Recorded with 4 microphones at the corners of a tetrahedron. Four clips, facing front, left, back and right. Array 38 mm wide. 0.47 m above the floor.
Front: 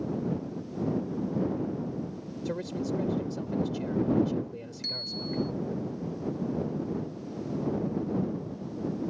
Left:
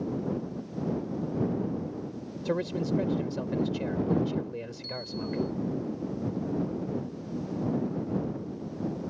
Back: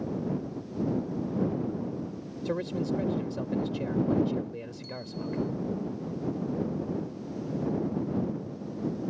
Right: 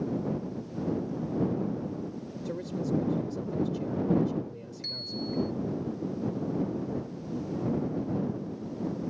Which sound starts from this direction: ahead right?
A bicycle bell, at 4.8 s.